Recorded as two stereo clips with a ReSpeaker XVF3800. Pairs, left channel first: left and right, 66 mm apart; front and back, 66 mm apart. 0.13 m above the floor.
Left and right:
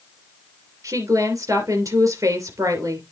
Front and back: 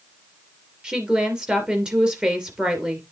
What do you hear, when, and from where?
0.8 s a woman speaking: 105° right, 2.5 m